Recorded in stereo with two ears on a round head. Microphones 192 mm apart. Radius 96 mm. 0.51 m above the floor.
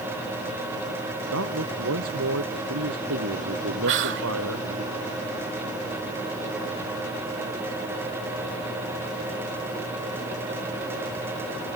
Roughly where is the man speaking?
Right.